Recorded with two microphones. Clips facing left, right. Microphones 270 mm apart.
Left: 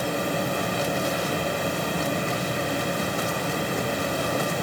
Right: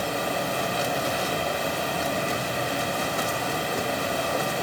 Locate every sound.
0.0 s running water: 50° left (ahead or behind), 3 m